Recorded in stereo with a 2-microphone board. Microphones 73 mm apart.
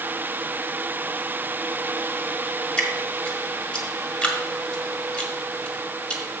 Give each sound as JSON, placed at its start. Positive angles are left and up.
{"t": 2.8, "sound": "dripping", "side_deg": 15, "distance_m": 1.4}